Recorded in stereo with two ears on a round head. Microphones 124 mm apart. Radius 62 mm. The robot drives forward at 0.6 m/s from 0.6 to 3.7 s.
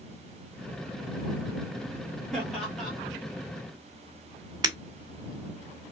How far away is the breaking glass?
About 2 m.